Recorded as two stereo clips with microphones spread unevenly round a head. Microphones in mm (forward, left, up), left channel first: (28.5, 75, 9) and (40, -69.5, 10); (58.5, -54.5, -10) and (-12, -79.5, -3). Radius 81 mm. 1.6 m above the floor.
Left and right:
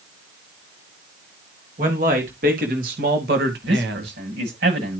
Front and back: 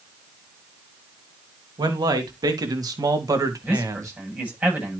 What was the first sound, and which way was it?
A man speaking, 135° right.